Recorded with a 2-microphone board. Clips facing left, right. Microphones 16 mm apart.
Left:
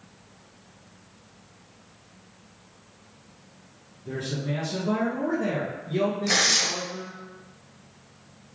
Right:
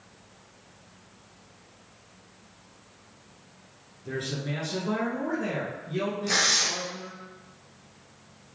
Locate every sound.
4.0 s a man speaking: 35° right (ahead or behind), 1.2 m; by 7.2 s 45° left (ahead or behind), 1.7 m
6.3 s tearing paper: 25° left (ahead or behind), 1.2 m